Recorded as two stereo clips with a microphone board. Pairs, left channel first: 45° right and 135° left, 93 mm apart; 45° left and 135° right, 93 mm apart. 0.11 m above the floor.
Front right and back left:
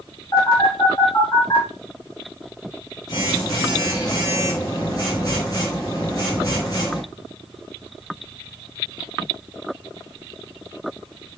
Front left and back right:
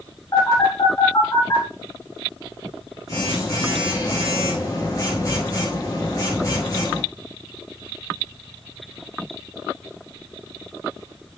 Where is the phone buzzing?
5° right, 4 m.